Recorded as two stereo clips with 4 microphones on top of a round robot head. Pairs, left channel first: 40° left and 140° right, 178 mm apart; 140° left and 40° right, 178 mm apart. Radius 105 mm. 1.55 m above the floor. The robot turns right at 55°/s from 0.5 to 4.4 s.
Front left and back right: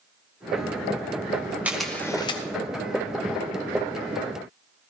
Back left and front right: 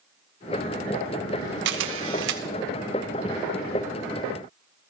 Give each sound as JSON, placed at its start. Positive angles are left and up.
{"t": 1.6, "sound": "a camera shutter", "azimuth_deg": -60, "distance_m": 0.9}